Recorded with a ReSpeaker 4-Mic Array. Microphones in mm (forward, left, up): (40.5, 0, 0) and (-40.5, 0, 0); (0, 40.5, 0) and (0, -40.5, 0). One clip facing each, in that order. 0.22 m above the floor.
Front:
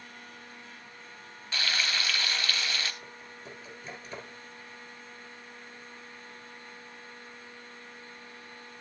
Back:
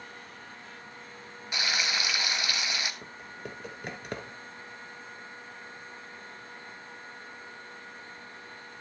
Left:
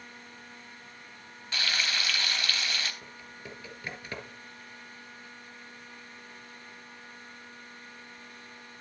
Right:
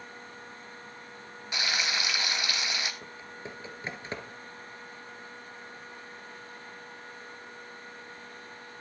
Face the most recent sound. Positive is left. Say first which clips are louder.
# back 4 dB, right 3 dB
turn(degrees=-155)